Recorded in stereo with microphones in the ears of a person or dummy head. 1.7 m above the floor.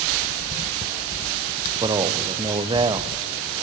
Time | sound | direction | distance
1.8 | a man speaking | 20° right (ahead or behind) | 1.2 m